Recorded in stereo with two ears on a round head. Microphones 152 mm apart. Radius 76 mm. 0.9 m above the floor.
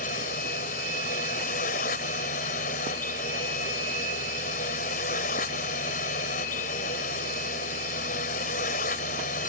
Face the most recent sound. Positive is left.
turn(degrees=50)  # may be behind; listen again after turning